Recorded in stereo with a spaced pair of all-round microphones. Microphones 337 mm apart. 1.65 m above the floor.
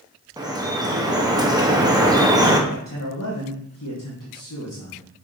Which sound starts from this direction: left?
A man speaking, at 2.7 s.